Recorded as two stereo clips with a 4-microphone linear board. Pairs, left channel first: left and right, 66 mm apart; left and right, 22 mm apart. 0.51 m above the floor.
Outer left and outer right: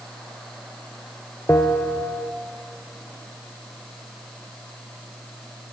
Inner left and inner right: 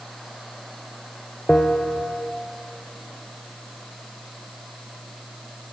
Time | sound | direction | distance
1.5 | a bell | 35° left (ahead or behind) | 0.5 m